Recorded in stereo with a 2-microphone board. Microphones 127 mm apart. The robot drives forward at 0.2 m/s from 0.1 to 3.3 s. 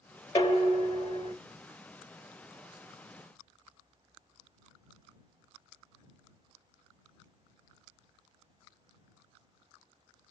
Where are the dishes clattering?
40° left (ahead or behind), 1.2 m; by 1.3 s 45° left (ahead or behind), 1.0 m.